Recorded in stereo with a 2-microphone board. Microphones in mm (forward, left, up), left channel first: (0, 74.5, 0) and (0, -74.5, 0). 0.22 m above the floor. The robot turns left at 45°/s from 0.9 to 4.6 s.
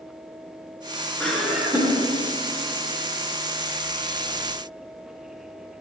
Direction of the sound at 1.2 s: 10° left.